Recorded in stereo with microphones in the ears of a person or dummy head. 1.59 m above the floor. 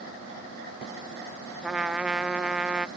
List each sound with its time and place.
1.6 s a trumpet: 5° right (ahead or behind)